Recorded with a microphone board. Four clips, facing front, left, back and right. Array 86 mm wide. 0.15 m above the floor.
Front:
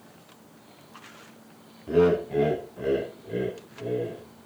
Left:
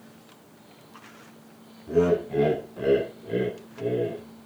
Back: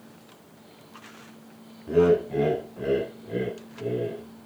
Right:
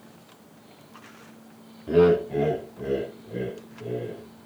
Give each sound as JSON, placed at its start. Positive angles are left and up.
{"t": 1.9, "sound": "laughter", "azimuth_deg": -80, "distance_m": 1.1}